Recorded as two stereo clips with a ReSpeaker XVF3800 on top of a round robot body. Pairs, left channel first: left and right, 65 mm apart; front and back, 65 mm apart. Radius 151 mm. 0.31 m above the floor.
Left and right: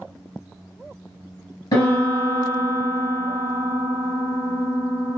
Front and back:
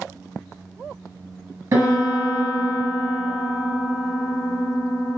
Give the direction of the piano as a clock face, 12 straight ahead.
8 o'clock.